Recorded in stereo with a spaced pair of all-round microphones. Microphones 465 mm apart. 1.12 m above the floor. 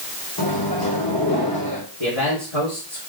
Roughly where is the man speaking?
Left.